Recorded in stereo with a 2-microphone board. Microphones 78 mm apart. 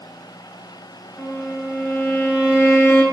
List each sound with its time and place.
1.2 s a violin: 40° left (ahead or behind), 1.9 m